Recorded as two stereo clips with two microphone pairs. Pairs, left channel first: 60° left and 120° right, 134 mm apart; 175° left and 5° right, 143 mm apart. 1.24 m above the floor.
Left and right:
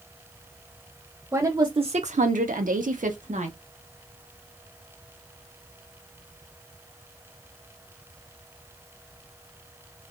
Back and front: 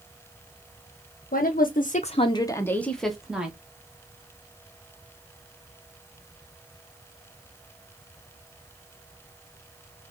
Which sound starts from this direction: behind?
A woman speaking, at 1.3 s.